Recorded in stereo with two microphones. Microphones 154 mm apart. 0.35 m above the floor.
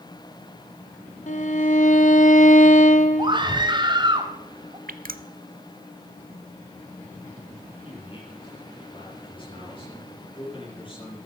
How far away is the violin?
About 1.3 m.